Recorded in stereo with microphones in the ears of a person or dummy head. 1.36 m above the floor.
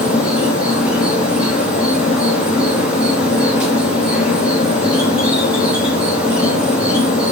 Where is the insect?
Centre (ahead or behind), 2 m.